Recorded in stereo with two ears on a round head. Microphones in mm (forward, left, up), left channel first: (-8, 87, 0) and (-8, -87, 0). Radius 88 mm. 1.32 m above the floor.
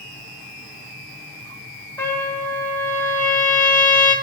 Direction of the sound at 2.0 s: 10° left (ahead or behind).